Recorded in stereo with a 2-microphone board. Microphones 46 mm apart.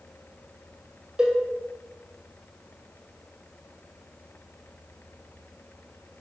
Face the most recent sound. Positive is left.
turn(degrees=-20)  # may be behind; listen again after turning